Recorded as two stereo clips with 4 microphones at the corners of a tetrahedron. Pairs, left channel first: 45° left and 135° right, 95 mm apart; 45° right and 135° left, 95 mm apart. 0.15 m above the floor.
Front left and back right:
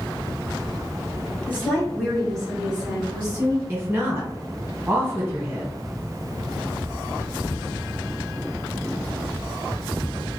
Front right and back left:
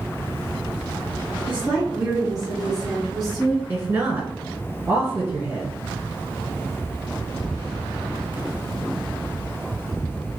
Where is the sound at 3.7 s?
Straight behind, 1.5 m.